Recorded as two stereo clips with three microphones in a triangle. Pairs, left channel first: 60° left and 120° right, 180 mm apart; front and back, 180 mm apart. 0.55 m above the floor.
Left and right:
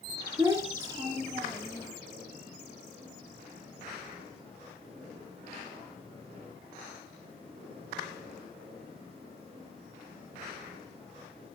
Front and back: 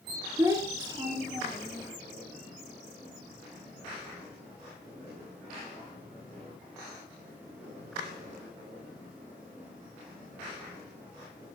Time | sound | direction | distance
0.4 | a child speaking | 150° right | 0.6 m